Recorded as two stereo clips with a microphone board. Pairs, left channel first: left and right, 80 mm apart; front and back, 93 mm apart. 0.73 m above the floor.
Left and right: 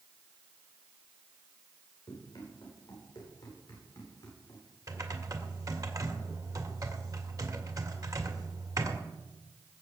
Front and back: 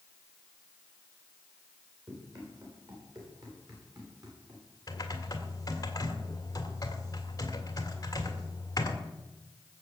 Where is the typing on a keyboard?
50° right, 1.9 m.